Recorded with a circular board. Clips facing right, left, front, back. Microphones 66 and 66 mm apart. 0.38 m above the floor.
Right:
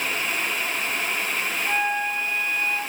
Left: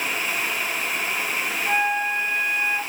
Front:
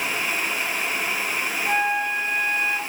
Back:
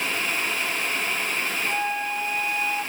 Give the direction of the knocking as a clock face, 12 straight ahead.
No knocking in this recording.